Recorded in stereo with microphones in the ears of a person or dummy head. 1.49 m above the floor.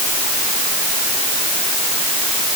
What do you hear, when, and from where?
Only background noise.